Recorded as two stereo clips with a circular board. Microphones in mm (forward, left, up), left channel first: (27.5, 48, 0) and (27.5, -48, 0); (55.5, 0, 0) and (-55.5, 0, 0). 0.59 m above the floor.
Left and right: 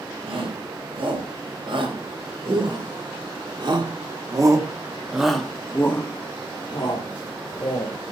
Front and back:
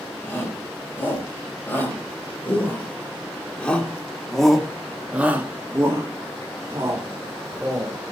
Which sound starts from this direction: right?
A shout, at 0.2 s.